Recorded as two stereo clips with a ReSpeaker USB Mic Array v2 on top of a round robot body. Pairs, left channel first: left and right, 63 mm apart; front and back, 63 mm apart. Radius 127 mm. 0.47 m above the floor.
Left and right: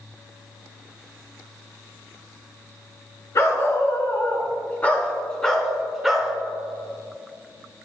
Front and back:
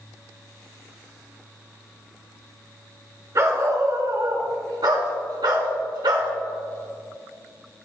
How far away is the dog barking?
About 2 m.